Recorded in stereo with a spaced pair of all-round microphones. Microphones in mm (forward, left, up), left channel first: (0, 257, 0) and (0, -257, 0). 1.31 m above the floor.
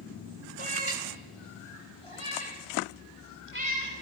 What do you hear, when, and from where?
0.6 s a cat meowing: 70° left (ahead or behind), 3.5 m; by 3.9 s 85° left, 7.5 m